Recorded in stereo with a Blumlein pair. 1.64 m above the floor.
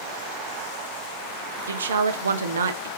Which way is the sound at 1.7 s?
70° right.